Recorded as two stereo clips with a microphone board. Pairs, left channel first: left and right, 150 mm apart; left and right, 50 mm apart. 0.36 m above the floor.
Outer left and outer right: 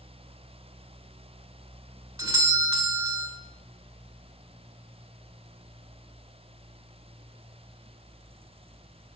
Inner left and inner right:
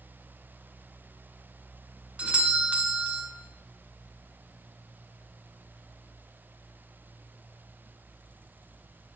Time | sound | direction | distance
2.2 | a doorbell | 20° right (ahead or behind) | 1.7 m